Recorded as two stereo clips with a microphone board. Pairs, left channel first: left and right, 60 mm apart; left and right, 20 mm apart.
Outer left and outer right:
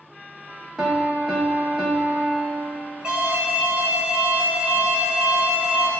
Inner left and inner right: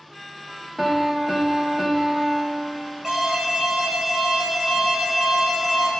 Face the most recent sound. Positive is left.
turn(degrees=-15)  # may be behind; listen again after turning